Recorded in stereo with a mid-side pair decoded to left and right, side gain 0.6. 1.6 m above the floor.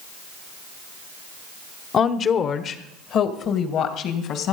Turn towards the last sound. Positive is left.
turn(degrees=60)